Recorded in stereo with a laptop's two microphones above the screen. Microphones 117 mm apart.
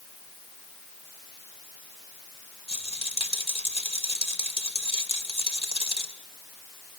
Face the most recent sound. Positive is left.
turn(degrees=60)  # may be behind; listen again after turning